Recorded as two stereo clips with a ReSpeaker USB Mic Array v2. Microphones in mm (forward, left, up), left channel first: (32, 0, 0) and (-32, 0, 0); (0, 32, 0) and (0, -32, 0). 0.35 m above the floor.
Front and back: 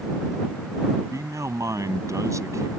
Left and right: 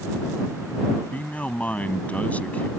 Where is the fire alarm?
I don't hear a fire alarm.